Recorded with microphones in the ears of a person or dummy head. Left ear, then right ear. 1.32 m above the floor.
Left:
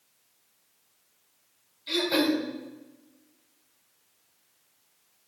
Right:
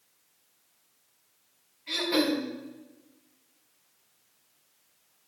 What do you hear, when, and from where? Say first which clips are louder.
1.9 s throat clearing: left 2 dB; 30° left (ahead or behind), 3 m